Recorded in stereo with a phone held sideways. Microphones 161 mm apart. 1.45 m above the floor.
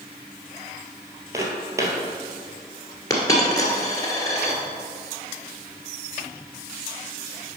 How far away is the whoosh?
No whoosh in this recording.